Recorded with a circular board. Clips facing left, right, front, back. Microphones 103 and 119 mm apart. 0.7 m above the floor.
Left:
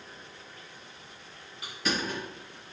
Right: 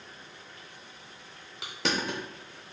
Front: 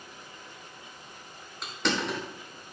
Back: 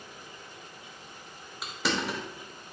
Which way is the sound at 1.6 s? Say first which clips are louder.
Right 1 dB, front 1 dB; 95° right.